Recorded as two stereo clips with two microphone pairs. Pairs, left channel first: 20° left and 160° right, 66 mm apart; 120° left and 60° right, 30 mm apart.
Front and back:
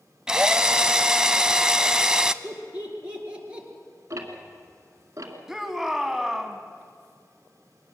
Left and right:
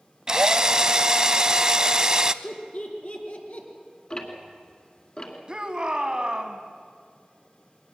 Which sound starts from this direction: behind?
Ticking, at 4.1 s.